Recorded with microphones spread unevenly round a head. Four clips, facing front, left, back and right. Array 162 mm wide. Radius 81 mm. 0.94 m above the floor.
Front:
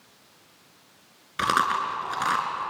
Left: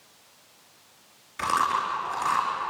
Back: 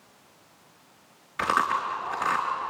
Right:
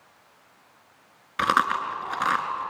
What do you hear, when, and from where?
1.4 s chewing: 60° right, 4 m